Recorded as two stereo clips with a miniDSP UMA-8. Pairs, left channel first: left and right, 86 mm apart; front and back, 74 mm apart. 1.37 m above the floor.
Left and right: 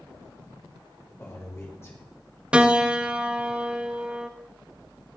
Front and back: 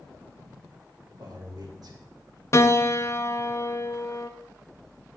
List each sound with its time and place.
1.2 s a man speaking: 150° left, 2 m
2.5 s a piano: 15° right, 0.6 m